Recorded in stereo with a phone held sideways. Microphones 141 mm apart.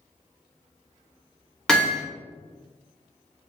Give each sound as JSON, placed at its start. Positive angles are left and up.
{"t": 1.7, "sound": "hammering", "side_deg": 5, "distance_m": 1.4}